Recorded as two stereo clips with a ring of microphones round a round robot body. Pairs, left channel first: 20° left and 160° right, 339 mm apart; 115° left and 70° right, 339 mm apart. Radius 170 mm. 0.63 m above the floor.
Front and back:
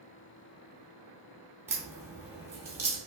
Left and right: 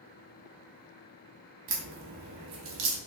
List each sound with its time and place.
1.7 s a crack: 80° right, 0.8 m